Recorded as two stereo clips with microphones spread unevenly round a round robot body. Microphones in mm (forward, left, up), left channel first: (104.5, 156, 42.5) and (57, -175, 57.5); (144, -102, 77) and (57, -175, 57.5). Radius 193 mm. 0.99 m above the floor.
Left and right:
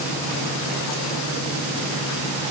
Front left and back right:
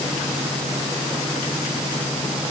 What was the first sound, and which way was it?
Only background noise.